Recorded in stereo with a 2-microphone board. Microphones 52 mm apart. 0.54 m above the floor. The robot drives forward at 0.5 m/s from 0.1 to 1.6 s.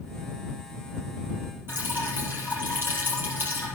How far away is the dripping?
About 5 m.